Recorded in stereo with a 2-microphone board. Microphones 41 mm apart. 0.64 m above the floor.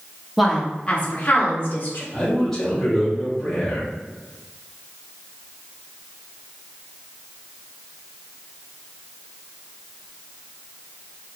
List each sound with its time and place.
0.4 s a woman speaking: 5° right (ahead or behind), 0.8 m; by 2.0 s 50° left (ahead or behind), 2 m
2.1 s a man speaking: 15° left (ahead or behind), 1.8 m